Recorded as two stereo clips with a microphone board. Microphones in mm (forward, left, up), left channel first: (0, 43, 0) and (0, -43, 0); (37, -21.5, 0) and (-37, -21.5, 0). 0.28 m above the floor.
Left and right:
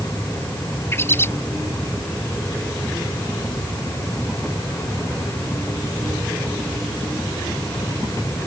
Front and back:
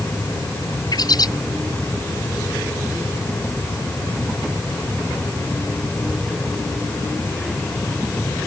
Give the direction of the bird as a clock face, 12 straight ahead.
11 o'clock.